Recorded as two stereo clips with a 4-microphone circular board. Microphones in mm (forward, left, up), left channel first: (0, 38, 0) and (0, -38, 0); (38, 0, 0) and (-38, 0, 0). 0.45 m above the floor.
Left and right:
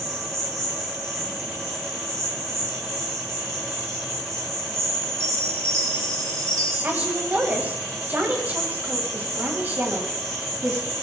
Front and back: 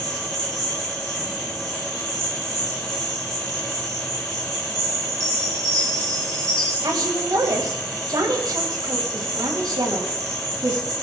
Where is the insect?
140° right, 8 m.